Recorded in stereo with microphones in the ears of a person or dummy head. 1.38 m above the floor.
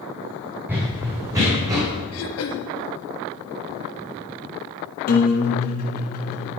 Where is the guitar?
45° left (ahead or behind), 1.5 m.